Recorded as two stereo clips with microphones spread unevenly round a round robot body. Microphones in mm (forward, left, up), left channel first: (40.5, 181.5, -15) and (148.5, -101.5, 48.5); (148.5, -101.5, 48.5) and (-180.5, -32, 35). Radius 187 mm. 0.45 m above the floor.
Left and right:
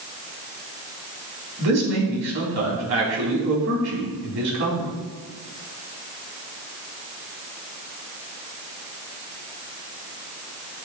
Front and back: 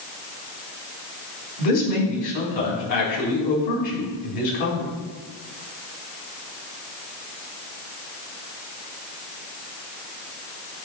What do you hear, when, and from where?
1.6 s a man speaking: 35° right, 4.5 m